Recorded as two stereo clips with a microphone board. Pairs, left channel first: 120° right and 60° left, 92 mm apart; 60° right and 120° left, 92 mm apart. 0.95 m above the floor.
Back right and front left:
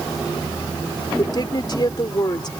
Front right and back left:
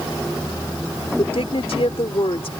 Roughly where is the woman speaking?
Right.